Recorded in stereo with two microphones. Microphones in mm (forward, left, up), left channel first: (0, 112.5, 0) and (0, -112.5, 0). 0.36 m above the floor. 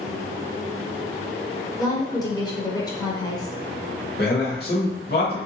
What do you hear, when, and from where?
1.8 s a woman speaking: 15° left (ahead or behind), 0.8 m
4.2 s a man speaking: 45° left (ahead or behind), 1.3 m